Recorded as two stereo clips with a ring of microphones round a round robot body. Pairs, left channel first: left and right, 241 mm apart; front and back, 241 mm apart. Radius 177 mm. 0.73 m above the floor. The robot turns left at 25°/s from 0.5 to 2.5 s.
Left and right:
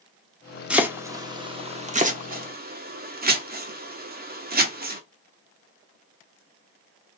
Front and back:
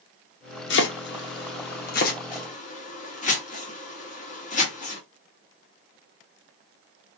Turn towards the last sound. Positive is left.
turn(degrees=-50)